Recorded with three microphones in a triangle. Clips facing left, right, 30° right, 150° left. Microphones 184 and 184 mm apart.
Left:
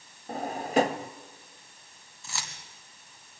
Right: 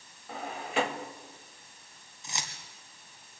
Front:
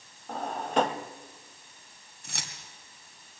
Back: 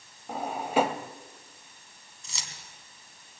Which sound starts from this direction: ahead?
Keys jangling, at 2.2 s.